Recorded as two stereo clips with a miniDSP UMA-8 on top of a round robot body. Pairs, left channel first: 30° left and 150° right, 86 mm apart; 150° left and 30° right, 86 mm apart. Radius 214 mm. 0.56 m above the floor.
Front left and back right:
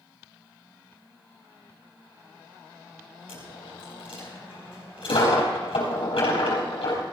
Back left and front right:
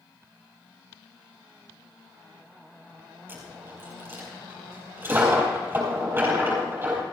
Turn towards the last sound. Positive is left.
turn(degrees=35)